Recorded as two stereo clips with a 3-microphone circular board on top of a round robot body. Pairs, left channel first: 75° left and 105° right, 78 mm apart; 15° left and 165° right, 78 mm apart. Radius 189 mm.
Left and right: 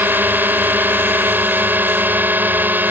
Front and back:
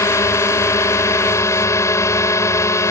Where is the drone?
40° right.